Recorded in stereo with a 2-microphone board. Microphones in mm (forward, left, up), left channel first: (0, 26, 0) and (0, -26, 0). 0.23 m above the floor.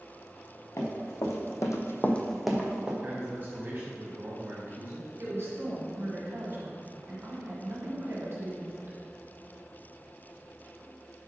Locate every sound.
0.8 s running footsteps: 60° left (ahead or behind), 1.8 m; by 2.9 s 15° right (ahead or behind), 1.5 m
3.0 s a man speaking: 35° right (ahead or behind), 1.3 m
5.2 s a woman speaking: 55° right (ahead or behind), 1.9 m